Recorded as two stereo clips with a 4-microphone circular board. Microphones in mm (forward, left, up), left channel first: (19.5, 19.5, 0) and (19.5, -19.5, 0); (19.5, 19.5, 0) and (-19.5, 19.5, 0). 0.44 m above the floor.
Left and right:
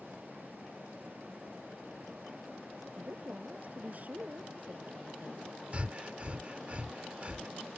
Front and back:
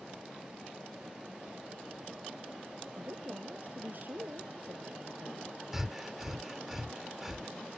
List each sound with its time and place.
3.0 s a woman speaking: 140° right
5.7 s breathing: 105° right